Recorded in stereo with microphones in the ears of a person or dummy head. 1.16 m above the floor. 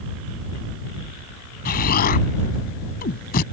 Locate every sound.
1.6 s an explosion: 45° left (ahead or behind)